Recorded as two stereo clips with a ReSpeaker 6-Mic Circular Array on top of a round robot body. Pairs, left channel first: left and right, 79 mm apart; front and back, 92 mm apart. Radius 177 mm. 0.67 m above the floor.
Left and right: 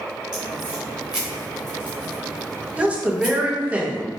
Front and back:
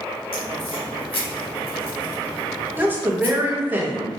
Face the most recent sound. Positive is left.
turn(degrees=-140)